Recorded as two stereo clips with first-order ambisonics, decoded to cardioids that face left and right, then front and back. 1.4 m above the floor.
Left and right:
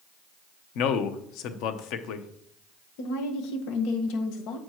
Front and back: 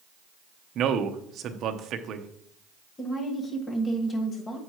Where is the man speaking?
125° left, 0.8 m.